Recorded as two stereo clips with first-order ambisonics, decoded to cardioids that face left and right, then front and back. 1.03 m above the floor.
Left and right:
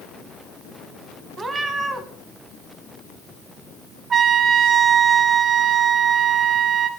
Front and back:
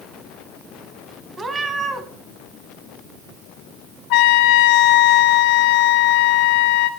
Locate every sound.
1.4 s a cat meowing: 140° right, 0.9 m
4.1 s a trumpet: 25° right, 0.7 m